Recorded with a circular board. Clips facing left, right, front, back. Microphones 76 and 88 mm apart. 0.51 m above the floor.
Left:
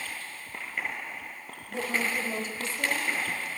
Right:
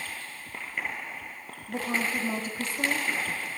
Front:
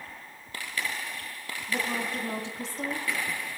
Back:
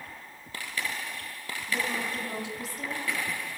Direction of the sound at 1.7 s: 55° right.